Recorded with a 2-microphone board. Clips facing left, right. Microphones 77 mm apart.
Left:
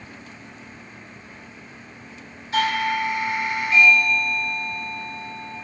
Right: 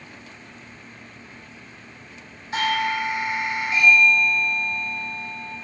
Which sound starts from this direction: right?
A doorbell, at 2.5 s.